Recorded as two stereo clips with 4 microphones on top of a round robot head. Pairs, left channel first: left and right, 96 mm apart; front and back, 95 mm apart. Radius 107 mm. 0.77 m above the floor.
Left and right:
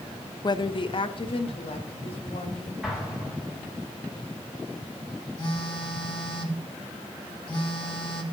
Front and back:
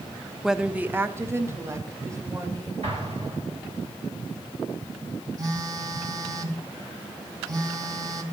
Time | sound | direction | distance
0.4 | a woman speaking | 95° left | 0.7 m
2.8 | an explosion | 175° right | 2.5 m
5.4 | a phone buzzing | 135° left | 2.0 m